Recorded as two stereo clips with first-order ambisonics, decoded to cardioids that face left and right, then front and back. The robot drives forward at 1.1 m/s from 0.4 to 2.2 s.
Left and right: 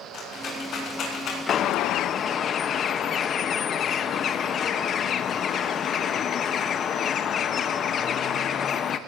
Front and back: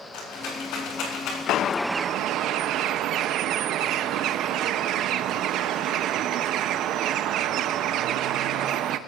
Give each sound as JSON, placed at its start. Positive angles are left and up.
{"t": 0.1, "sound": "a rattle", "azimuth_deg": 30, "distance_m": 5.5}
{"t": 1.5, "sound": "a bird", "azimuth_deg": 35, "distance_m": 0.6}